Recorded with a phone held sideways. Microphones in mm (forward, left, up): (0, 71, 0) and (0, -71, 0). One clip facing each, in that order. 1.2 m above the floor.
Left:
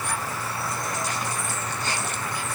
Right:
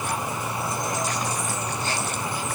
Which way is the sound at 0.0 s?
20° right (ahead or behind).